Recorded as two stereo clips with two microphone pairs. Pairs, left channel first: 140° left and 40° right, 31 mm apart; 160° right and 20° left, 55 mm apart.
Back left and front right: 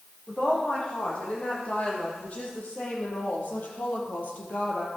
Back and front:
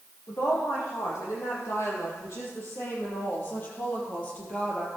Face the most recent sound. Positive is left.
turn(degrees=135)